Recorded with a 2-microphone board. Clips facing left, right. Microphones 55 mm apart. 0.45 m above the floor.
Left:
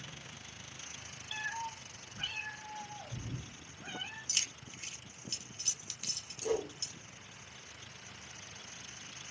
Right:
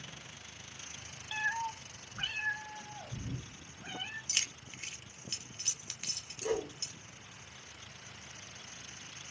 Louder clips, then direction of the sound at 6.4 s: Even; 50° right (ahead or behind).